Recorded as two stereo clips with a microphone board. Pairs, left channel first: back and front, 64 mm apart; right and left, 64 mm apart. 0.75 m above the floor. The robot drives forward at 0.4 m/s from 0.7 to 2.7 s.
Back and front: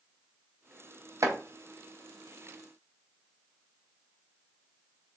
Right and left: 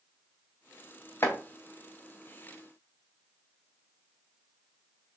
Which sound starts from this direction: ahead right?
Chopping, at 1.2 s.